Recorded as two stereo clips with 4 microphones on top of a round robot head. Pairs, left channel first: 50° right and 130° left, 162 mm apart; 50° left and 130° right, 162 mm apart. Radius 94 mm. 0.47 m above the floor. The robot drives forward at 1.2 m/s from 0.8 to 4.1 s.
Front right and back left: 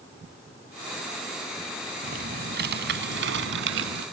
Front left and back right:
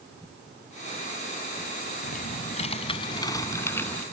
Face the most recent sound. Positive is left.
turn(degrees=135)